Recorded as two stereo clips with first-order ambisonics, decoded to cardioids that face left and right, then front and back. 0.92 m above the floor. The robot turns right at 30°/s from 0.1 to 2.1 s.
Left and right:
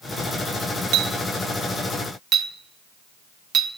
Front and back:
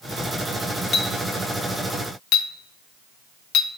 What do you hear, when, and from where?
0.9 s a clink: 70° right, 0.5 m; by 3.7 s 30° right, 0.5 m